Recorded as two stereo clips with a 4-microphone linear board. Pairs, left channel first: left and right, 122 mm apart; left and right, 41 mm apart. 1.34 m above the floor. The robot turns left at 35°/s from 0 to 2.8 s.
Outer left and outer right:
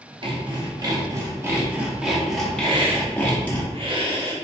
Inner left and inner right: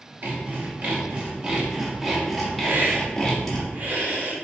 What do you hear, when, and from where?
0.2 s sawing: 105° right, 1.0 m; by 3.6 s 165° left, 1.0 m
2.6 s a hiss: 45° right (ahead or behind), 0.8 m; by 4.3 s 40° right (ahead or behind), 0.8 m